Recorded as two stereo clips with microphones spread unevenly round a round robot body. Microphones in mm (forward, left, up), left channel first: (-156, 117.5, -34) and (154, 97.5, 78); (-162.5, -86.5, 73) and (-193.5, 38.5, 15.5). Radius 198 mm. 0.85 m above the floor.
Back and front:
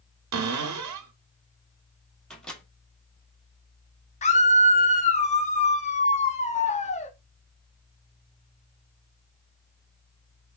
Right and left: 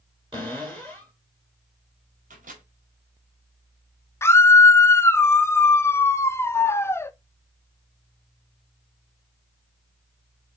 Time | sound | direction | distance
0.3 | a cupboard door | 30° left | 1.1 m
2.3 | a microwave | 90° left | 1.4 m
4.2 | a scream | 170° right | 0.7 m